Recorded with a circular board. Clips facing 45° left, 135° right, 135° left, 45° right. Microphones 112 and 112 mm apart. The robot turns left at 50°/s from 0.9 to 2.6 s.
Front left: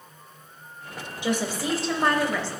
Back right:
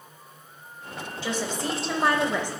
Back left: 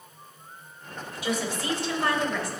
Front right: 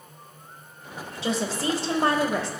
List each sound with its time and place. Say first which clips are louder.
1.2 s a woman speaking: front left 3 dB, front right 3 dB; 15° right, 1.0 m; by 2.5 s 80° right, 1.0 m